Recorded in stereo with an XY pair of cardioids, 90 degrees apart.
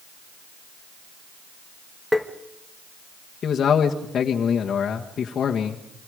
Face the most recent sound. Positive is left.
turn(degrees=60)